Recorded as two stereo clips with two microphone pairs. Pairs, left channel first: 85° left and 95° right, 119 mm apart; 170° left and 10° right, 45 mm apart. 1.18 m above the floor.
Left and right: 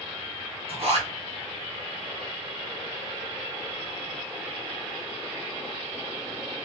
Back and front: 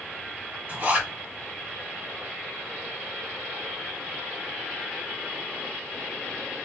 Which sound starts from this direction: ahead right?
A zipper, at 0.7 s.